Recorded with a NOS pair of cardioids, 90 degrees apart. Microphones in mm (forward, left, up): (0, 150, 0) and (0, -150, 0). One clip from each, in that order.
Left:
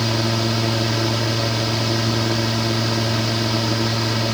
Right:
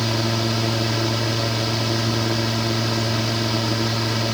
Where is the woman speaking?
No woman speaking in this recording.